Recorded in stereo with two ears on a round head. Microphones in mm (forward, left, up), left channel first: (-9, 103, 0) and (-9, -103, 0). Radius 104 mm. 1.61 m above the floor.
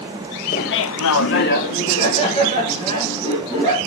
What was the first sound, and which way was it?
Laughter, 40° left (ahead or behind).